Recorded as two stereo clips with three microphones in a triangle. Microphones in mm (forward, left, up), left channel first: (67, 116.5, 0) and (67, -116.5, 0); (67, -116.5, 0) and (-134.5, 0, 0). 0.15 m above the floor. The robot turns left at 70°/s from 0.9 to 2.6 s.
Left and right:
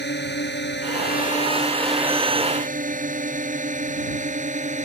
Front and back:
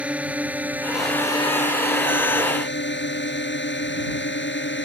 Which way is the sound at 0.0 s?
65° left.